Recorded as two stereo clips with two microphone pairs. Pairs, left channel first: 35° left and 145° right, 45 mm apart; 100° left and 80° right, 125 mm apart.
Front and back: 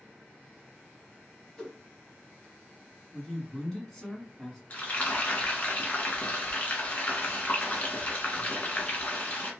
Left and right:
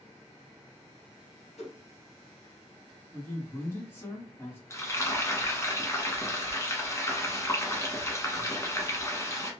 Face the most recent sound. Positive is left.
turn(degrees=50)